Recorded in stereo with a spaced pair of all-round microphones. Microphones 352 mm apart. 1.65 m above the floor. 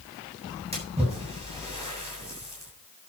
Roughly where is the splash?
Centre.